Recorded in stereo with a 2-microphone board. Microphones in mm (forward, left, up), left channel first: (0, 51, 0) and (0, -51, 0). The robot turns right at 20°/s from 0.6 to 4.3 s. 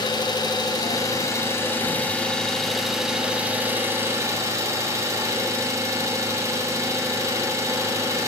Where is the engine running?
135° left, 0.8 m; by 8.3 s 150° right, 0.8 m.